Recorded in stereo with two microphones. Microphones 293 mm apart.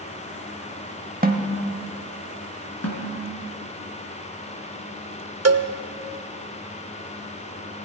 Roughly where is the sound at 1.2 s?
Right.